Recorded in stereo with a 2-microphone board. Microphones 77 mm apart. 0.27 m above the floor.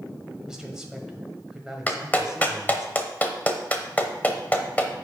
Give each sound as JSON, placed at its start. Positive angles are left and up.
{"t": 0.5, "sound": "a man speaking", "side_deg": -10, "distance_m": 1.3}
{"t": 1.9, "sound": "a clap", "side_deg": 20, "distance_m": 0.9}